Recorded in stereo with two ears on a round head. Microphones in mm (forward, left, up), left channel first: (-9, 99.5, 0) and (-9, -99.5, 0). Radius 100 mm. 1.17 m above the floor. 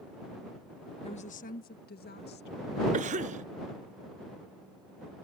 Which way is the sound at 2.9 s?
35° right (ahead or behind).